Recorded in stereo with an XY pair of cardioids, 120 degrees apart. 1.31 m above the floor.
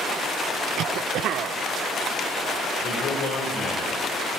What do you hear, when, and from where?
0.8 s a cough: 65° right, 0.8 m
2.8 s a man speaking: 60° left, 7 m